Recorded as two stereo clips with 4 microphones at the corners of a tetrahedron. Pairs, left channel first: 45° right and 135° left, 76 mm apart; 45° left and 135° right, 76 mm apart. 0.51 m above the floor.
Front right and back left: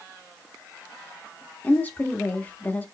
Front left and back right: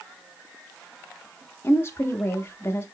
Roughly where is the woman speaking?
Ahead.